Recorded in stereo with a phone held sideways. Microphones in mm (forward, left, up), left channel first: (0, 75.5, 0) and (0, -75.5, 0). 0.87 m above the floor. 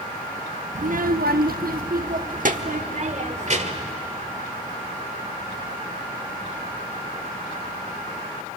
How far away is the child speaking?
About 0.6 m.